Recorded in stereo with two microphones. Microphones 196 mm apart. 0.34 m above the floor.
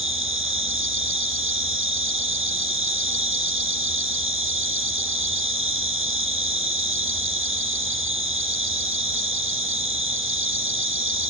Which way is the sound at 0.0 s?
85° right.